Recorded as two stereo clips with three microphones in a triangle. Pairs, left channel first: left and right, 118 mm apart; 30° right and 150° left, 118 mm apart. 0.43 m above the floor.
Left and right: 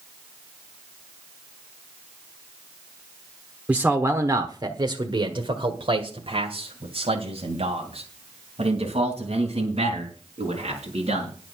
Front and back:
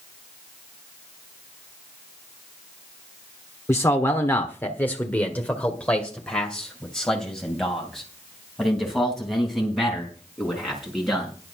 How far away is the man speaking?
About 1.2 m.